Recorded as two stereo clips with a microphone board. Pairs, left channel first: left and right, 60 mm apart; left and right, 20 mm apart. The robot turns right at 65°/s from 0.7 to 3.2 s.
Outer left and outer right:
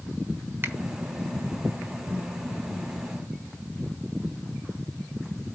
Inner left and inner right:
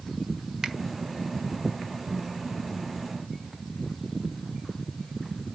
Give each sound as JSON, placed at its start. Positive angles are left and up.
{"t": 0.6, "sound": "a finger snap", "side_deg": -40, "distance_m": 1.2}